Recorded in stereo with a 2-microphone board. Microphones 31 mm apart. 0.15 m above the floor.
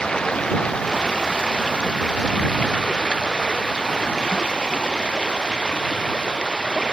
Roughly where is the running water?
Left.